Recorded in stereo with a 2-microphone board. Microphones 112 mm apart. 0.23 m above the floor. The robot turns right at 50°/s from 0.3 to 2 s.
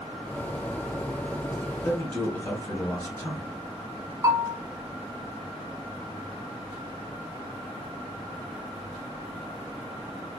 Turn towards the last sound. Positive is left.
turn(degrees=-30)  # may be behind; listen again after turning